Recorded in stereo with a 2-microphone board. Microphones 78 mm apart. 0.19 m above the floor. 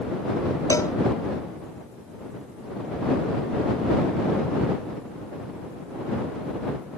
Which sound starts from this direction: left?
A cowbell, at 0.7 s.